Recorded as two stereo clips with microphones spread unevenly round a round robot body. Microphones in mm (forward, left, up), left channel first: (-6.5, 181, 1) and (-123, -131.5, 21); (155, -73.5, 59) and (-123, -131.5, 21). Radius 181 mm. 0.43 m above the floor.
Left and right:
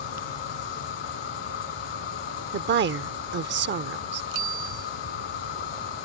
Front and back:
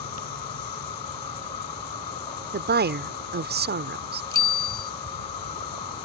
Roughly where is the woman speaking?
Behind right.